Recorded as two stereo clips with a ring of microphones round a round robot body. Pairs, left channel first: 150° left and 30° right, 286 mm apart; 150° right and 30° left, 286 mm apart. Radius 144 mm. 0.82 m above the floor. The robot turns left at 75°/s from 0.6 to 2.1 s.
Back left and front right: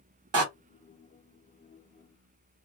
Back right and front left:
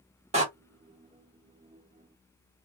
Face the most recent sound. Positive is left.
turn(degrees=-150)